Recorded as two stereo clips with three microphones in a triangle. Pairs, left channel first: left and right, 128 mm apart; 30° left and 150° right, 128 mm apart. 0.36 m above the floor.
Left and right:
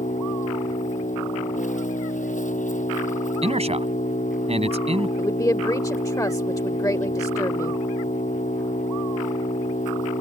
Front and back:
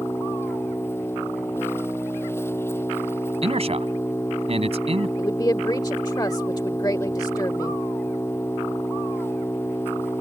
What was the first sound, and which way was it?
An engine running, 100° left.